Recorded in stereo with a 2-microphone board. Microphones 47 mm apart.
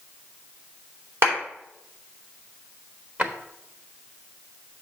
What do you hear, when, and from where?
1.2 s a clap: 55° right (ahead or behind), 3.5 m
3.2 s a drawer: 35° right (ahead or behind), 1.0 m